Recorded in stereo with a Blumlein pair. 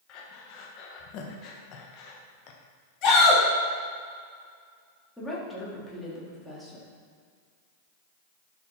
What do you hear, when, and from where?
0.1 s breathing: 35° left, 1.4 m
3.0 s a shout: 30° left, 3.5 m
5.2 s a woman speaking: 5° left, 3.5 m